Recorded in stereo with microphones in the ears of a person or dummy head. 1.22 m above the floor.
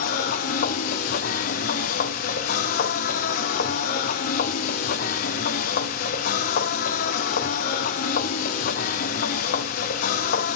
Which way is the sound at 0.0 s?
40° left (ahead or behind).